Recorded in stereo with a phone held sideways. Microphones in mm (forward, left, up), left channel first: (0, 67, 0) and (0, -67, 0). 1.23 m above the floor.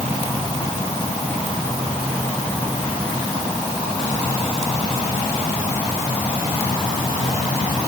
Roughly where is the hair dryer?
I don't hear a hair dryer.